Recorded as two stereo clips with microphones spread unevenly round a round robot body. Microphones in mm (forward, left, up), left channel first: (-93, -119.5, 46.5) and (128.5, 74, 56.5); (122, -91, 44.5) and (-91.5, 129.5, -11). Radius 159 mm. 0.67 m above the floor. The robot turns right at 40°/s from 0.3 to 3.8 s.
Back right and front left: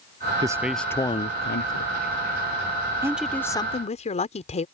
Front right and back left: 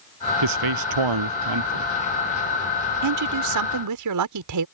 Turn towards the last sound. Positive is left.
turn(degrees=155)